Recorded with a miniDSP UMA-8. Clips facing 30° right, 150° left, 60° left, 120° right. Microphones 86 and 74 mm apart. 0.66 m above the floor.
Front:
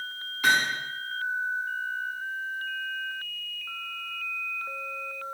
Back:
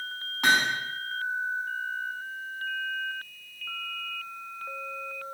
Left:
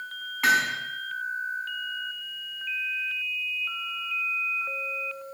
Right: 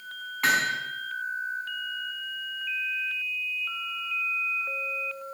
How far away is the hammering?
About 5.5 m.